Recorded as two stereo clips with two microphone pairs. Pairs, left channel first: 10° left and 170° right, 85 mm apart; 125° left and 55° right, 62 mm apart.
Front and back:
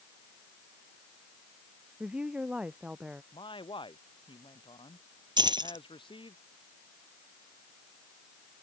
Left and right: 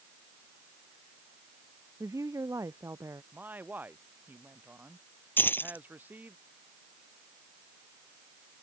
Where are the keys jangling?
175° left.